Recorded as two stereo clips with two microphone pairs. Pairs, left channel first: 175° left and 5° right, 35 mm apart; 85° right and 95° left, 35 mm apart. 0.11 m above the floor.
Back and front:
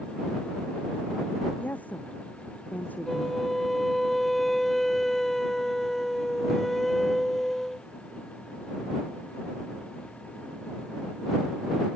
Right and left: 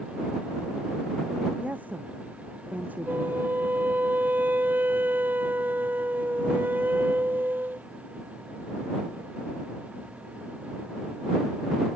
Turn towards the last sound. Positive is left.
turn(degrees=90)